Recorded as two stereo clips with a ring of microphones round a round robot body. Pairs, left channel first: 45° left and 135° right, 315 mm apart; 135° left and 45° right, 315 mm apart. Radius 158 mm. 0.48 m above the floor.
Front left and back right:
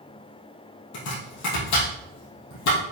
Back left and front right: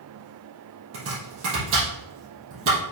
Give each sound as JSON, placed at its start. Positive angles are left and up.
{"t": 0.9, "sound": "chopping", "azimuth_deg": 5, "distance_m": 3.5}